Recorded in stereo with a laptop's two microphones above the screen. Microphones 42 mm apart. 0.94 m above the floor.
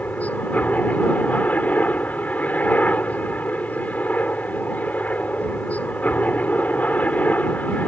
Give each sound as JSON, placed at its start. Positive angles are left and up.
{"t": 0.0, "sound": "a helicopter", "side_deg": 40}